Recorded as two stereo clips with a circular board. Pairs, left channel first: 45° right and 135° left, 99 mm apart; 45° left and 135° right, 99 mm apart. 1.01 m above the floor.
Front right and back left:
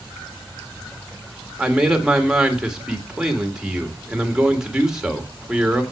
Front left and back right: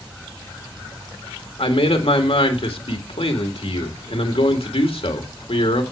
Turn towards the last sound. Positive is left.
turn(degrees=50)